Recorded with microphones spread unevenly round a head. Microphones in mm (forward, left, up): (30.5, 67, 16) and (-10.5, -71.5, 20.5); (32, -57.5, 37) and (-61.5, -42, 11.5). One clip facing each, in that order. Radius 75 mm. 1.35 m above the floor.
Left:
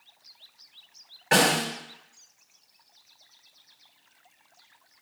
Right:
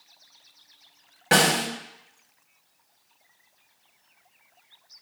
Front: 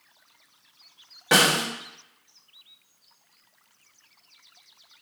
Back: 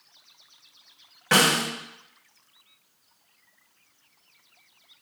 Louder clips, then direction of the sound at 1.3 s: Right 1 dB, even; 65° right.